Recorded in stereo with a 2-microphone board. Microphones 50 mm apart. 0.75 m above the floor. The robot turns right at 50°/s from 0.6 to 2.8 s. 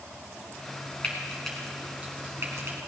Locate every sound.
1.0 s frying: 25° left (ahead or behind), 3 m; by 2.8 s 60° right (ahead or behind), 3 m